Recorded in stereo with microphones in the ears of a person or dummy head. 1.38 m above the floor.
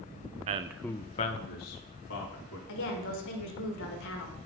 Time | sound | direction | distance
0.5 | a man speaking | 40° right (ahead or behind) | 0.6 m
2.7 | a woman speaking | 65° left (ahead or behind) | 1.5 m